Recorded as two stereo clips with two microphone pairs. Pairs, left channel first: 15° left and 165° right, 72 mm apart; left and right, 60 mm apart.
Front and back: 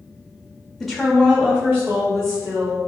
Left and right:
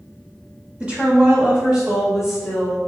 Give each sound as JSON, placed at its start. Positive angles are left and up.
{"t": 0.8, "sound": "a woman speaking", "azimuth_deg": -65, "distance_m": 1.3}